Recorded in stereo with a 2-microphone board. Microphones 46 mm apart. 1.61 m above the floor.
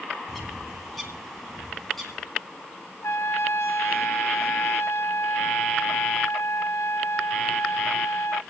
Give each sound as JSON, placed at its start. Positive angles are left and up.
{"t": 0.3, "sound": "a bird", "side_deg": 5, "distance_m": 2.5}
{"t": 3.0, "sound": "a trumpet", "side_deg": 75, "distance_m": 0.7}